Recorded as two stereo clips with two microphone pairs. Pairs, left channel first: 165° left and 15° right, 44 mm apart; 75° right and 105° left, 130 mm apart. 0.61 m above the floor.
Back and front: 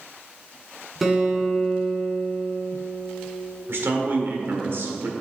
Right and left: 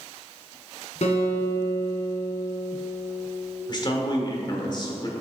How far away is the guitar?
About 2.0 m.